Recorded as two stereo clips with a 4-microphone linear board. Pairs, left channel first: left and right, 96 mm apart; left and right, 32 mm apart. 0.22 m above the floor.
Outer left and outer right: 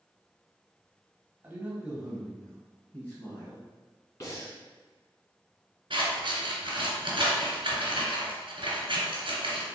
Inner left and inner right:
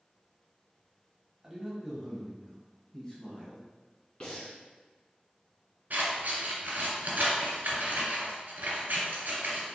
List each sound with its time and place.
1.4 s a man speaking: 20° right (ahead or behind), 1.1 m; by 3.6 s 25° left (ahead or behind), 1.5 m
4.2 s breathing: 35° left (ahead or behind), 1.6 m
5.9 s scissors: 65° right (ahead or behind), 1.5 m